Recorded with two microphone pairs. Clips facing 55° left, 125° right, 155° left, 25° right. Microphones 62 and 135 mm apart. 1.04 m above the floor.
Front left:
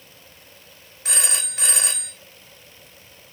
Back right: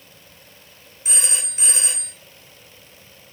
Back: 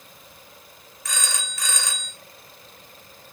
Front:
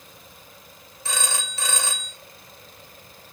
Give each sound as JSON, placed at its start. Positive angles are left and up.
{"t": 1.1, "sound": "a phone ringing", "azimuth_deg": 35, "distance_m": 2.0}